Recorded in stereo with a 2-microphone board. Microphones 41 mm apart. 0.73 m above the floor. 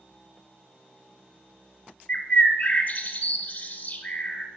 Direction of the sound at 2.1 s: 45° left (ahead or behind).